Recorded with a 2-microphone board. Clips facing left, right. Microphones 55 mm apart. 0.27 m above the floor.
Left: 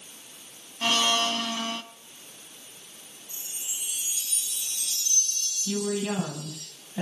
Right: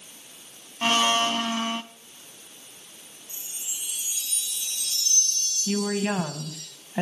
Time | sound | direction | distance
0.8 | a blender | 25° right (ahead or behind) | 0.7 m
3.3 | a chime | 80° right | 10 m
5.7 | a woman speaking | 50° right (ahead or behind) | 1.9 m